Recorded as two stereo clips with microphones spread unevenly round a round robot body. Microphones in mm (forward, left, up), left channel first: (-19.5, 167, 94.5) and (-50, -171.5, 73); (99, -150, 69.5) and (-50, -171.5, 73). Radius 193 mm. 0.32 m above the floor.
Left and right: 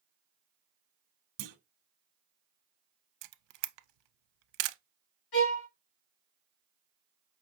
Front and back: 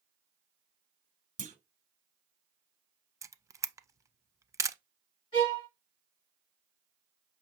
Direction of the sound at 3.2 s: 95° right.